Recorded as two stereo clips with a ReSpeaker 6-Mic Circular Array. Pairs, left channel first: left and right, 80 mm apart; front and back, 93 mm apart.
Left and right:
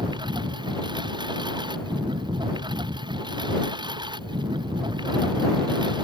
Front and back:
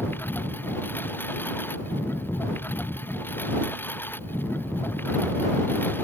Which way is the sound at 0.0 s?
70° right.